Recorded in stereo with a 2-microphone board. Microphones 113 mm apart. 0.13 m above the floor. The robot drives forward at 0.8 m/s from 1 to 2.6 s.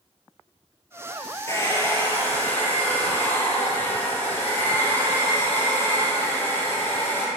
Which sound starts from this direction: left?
A hair dryer, at 1.5 s.